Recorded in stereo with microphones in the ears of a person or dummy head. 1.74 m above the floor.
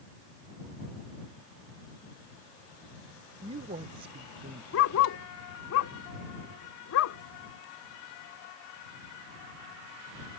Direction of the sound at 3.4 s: 30° right (ahead or behind).